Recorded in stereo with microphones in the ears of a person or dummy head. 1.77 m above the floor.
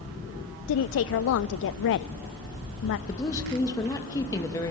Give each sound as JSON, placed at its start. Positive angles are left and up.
{"t": 0.7, "sound": "a woman speaking", "side_deg": 70, "distance_m": 0.6}
{"t": 3.1, "sound": "a woman speaking", "side_deg": 20, "distance_m": 2.0}